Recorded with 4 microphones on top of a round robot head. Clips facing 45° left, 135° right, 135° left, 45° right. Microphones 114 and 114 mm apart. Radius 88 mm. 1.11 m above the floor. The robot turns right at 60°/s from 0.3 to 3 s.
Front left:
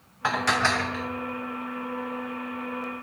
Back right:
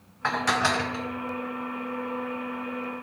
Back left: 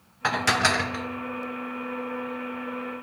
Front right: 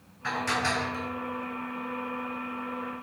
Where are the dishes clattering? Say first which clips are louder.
Even, back left 5 dB; 125° left, 0.5 m; by 1.1 s 170° left, 0.5 m.